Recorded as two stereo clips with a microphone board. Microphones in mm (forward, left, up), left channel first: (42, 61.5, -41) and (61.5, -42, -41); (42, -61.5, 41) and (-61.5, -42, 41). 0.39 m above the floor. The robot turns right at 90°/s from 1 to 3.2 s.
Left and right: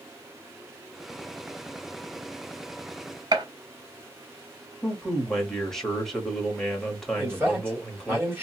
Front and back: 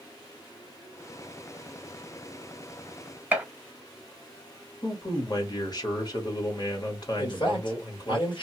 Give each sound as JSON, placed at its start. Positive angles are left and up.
{"t": 3.3, "sound": "a gunshot", "azimuth_deg": -115, "distance_m": 1.0}
{"t": 4.8, "sound": "a man speaking", "azimuth_deg": 15, "distance_m": 1.3}
{"t": 7.2, "sound": "a man speaking", "azimuth_deg": -20, "distance_m": 2.0}